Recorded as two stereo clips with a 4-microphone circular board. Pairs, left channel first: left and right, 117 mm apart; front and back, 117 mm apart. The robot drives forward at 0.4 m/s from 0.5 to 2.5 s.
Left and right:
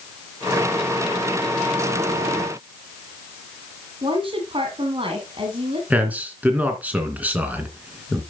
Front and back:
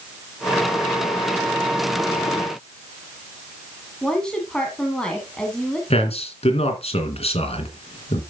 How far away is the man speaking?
About 2.5 m.